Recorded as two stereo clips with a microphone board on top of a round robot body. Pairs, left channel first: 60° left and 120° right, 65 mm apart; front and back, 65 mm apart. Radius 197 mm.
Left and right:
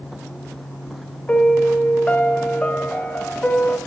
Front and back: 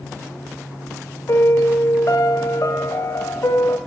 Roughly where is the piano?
Ahead.